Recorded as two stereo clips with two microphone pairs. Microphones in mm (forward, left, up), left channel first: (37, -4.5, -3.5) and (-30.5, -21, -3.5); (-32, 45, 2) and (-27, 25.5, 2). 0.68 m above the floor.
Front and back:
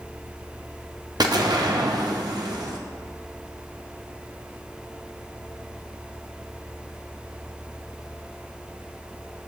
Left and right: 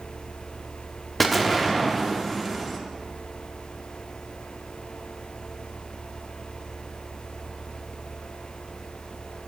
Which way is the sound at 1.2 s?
170° right.